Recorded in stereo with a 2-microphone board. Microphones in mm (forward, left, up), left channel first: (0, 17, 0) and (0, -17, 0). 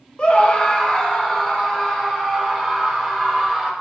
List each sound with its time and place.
0.2 s a scream: 35° left (ahead or behind), 0.7 m; by 3.7 s 10° left (ahead or behind), 2.5 m